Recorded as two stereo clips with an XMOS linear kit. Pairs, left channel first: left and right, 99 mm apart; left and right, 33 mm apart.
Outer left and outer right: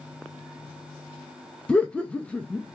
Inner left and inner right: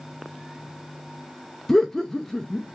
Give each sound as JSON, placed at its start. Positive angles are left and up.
{"t": 1.7, "sound": "laughter", "side_deg": 10, "distance_m": 0.5}